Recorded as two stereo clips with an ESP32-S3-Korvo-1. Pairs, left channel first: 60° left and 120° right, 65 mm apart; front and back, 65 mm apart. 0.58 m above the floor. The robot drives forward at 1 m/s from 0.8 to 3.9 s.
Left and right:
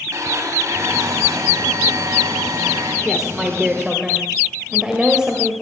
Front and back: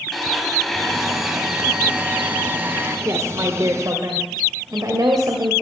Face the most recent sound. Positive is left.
turn(degrees=165)